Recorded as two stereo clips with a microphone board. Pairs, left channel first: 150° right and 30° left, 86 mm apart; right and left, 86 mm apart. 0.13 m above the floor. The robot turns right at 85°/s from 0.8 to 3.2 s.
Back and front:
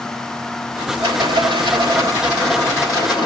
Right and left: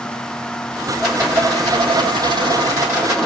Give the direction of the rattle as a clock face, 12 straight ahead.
12 o'clock.